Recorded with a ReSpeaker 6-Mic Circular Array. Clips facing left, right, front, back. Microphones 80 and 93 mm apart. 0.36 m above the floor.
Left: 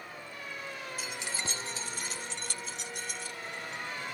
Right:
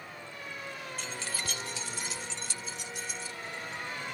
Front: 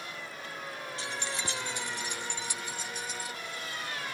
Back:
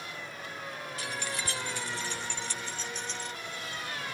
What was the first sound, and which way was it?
Keys jangling, 10° left.